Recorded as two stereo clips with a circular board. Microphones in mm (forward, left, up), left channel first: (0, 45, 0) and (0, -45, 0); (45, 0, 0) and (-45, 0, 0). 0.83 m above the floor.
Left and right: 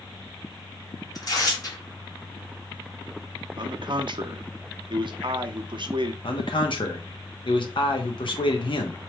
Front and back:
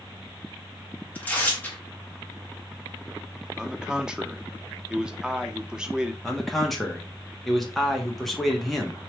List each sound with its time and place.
1.1 s tearing paper: 65° left, 1.3 m
3.6 s a man speaking: 100° right, 0.7 m
6.2 s a man speaking: 90° left, 1.1 m